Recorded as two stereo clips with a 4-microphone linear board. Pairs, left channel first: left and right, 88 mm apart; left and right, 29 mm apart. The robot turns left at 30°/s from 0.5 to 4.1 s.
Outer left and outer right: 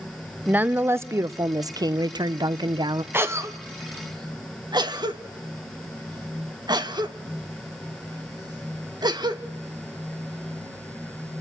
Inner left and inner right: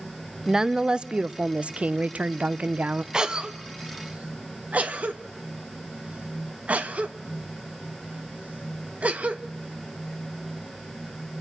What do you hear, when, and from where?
0.5 s a woman speaking: 25° right, 0.6 m; by 3.0 s 100° right, 0.6 m
3.1 s a cough: 25° right (ahead or behind), 1.6 m; by 9.4 s 55° right (ahead or behind), 1.6 m